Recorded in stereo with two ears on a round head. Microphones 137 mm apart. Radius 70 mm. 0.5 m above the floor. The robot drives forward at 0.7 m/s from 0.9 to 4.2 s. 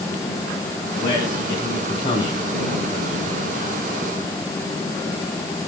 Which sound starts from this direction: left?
A man speaking, at 1.0 s.